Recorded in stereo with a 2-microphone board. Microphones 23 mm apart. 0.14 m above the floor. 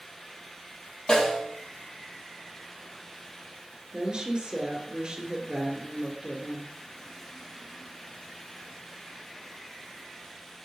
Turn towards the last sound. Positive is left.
turn(degrees=-40)  # may be behind; listen again after turning